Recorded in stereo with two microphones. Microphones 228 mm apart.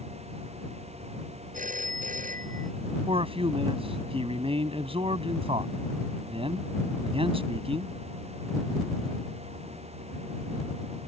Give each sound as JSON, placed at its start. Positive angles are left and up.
{"t": 1.5, "sound": "a phone ringing", "side_deg": -35}
{"t": 3.1, "sound": "a man speaking", "side_deg": -25}